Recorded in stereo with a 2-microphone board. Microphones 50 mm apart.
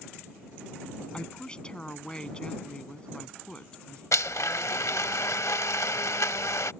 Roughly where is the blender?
Left.